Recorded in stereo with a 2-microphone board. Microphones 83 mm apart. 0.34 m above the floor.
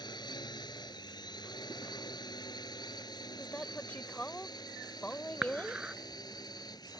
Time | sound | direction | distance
0.0 | a drone | 65° left (ahead or behind) | ?
3.4 | a woman speaking | 20° left (ahead or behind) | ?
5.4 | dishes clattering | 10° right (ahead or behind) | ?